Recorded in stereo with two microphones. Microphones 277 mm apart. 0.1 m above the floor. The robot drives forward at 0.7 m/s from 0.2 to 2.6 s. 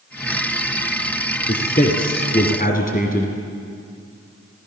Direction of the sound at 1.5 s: 30° left (ahead or behind).